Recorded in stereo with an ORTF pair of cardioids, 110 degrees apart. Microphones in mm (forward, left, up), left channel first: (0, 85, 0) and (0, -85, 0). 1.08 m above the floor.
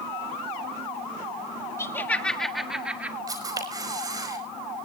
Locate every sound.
1.8 s laughter: 15° left, 1.6 m; by 3.2 s 10° right, 2 m
3.3 s a camera shutter: 20° right, 5 m